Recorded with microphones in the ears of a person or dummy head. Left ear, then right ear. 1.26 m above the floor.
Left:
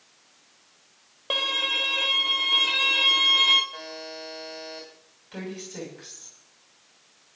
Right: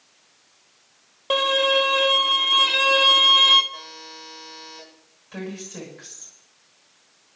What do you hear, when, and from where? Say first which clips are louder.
1.3 s a violin: right 5 dB; centre (ahead or behind), 1.2 m
3.7 s a buzzer: left 1 dB; 15° left (ahead or behind), 6 m
5.3 s a woman speaking: right 2 dB; 5° left (ahead or behind), 5.5 m